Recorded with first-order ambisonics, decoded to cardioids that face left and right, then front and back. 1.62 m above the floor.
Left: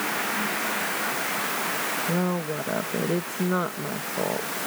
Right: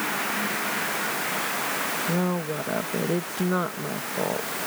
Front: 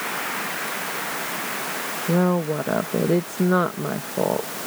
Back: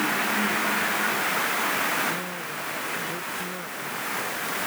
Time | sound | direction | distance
2.1 | a woman speaking | straight ahead | ?